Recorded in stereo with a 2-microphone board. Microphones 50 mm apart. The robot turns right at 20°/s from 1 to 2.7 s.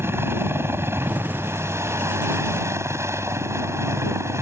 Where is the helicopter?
115° right; by 4.4 s 80° right.